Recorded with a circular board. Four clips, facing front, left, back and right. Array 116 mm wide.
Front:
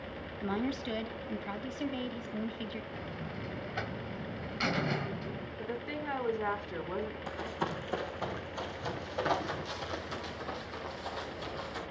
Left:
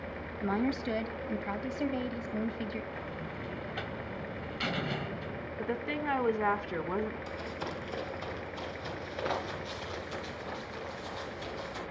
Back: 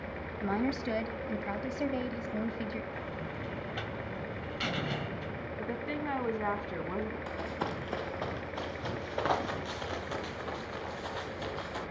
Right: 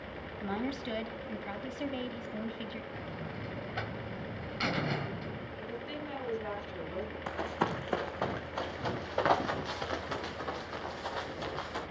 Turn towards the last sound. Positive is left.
turn(degrees=-120)